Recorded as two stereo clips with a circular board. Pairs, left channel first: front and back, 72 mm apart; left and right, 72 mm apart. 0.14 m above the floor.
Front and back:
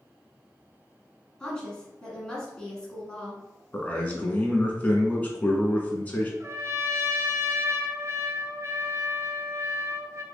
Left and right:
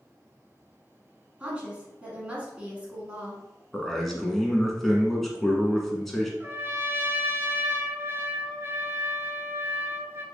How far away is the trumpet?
About 0.6 m.